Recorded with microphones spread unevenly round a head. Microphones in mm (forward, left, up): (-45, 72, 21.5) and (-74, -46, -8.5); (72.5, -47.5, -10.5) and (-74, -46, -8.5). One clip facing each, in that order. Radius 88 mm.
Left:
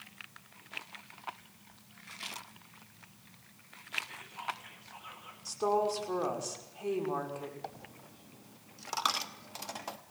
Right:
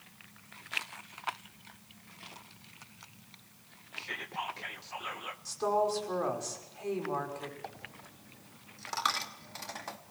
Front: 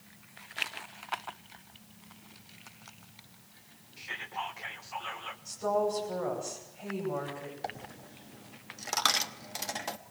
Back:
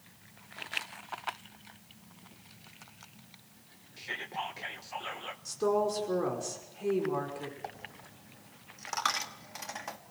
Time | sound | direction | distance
4.0 | whispering | 125° right | 1.0 m
5.5 | a woman speaking | 155° left | 5.5 m
7.6 | a dropped coin | 30° left | 0.9 m